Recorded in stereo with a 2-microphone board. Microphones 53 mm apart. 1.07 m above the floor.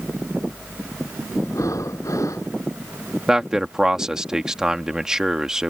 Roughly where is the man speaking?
Centre.